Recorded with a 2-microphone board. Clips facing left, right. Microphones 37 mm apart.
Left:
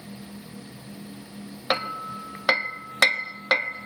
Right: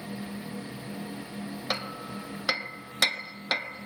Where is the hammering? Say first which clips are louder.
Left 8 dB; 35° left (ahead or behind), 1.0 m.